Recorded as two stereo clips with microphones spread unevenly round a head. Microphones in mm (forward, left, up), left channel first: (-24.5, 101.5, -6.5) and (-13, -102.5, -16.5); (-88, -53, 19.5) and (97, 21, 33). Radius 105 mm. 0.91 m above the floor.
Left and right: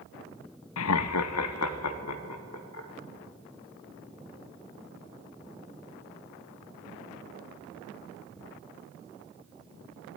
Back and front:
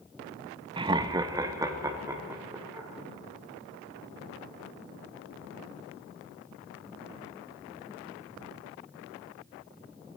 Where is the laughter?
90° left, 0.5 m; by 2.9 s 100° left, 2.5 m.